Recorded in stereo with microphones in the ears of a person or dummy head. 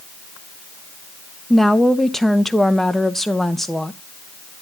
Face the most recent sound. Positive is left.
turn(degrees=0)  # may be behind; listen again after turning